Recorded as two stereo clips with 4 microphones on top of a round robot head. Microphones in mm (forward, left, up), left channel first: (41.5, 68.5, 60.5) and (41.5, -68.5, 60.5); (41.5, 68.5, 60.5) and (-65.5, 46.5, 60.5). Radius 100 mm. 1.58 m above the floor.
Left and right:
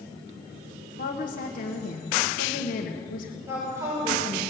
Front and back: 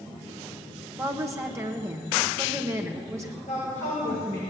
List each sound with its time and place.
1.0 s a woman speaking: 130° left, 1.4 m
3.5 s a woman speaking: 20° right, 6 m